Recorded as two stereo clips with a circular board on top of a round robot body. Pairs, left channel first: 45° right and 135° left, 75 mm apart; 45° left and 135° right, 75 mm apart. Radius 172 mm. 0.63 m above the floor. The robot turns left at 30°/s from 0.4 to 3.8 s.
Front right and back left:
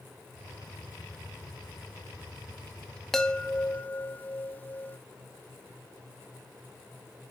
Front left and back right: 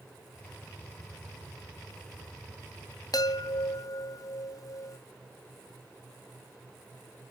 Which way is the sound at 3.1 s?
35° left.